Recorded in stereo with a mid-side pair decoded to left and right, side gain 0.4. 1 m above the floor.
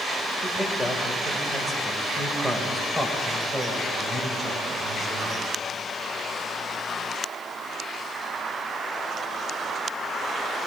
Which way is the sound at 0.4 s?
10° left.